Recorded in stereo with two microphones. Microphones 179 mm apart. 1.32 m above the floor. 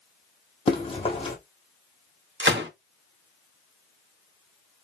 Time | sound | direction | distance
0.7 | running footsteps | 30° left (ahead or behind) | 1.6 m
2.4 | a gunshot | 75° right (ahead or behind) | 0.9 m